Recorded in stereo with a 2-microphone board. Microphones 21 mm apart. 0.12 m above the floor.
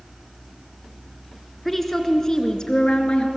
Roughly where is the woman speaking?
Centre.